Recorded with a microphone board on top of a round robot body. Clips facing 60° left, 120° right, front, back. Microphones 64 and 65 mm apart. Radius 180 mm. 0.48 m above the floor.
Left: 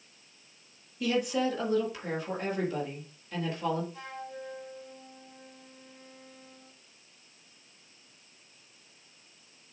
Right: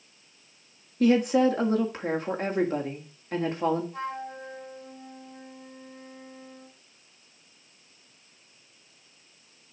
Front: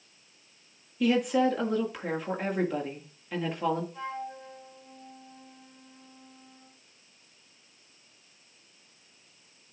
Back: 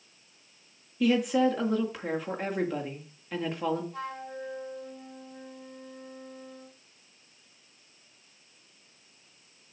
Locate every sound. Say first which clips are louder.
1.0 s a woman speaking: right 8 dB, even; 90° right, 1.7 m
3.9 s a flute: right 7 dB, even; 155° right, 6 m